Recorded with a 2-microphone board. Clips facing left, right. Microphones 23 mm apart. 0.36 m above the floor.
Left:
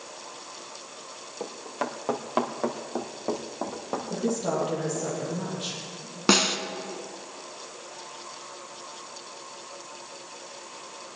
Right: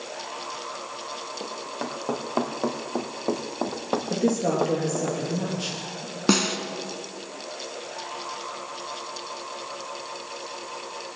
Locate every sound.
1.4 s running footsteps: 15° left (ahead or behind), 2 m; by 5.1 s 45° right (ahead or behind), 1.7 m
4.1 s a woman speaking: 55° right (ahead or behind), 7 m
6.3 s a snare drum: 10° left (ahead or behind), 1.5 m